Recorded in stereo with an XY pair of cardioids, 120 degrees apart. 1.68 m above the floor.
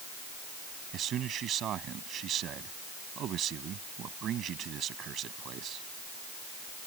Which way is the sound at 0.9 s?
55° right.